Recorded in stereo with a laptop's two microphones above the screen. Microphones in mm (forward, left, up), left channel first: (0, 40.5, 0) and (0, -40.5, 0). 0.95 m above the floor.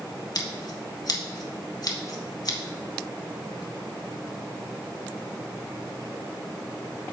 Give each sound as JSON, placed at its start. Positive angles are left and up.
{"t": 0.3, "sound": "scissors", "side_deg": 50, "distance_m": 1.4}